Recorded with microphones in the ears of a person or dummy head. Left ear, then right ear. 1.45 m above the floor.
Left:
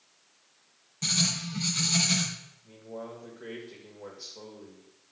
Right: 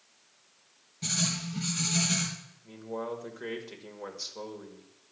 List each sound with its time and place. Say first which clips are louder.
1.0 s writing: left 4 dB; 25° left (ahead or behind), 3 m
2.6 s a man speaking: right 6 dB; 70° right (ahead or behind), 2 m